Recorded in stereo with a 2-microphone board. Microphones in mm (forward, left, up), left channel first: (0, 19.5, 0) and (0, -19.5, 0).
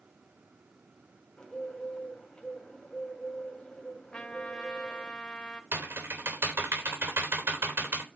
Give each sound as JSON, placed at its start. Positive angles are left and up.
{"t": 1.4, "sound": "a bird", "side_deg": 25, "distance_m": 2.5}
{"t": 4.1, "sound": "a trumpet", "side_deg": 30, "distance_m": 2.0}
{"t": 5.7, "sound": "typing on a keyboard", "side_deg": -85, "distance_m": 3.0}